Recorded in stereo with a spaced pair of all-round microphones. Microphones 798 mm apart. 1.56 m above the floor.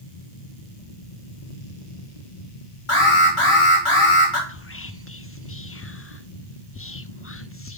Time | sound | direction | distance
0.0 | a fan | 55° left (ahead or behind) | 1.2 m
2.9 | an alarm | 35° left (ahead or behind) | 3 m
4.5 | whispering | 20° left (ahead or behind) | 0.5 m